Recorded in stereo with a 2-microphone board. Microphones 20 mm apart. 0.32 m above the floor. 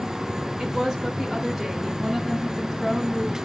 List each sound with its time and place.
0.6 s a woman speaking: 20° right (ahead or behind), 3.5 m; by 3.4 s 5° left (ahead or behind), 2 m